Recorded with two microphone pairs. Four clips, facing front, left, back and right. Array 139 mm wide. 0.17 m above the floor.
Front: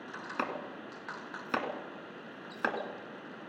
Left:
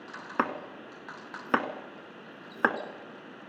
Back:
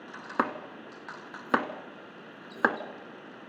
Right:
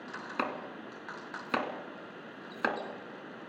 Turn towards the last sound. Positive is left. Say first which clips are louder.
# left 5 dB, back 7 dB
turn(degrees=145)